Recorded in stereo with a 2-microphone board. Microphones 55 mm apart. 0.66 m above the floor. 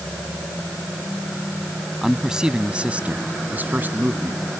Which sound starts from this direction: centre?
A man speaking, at 2.0 s.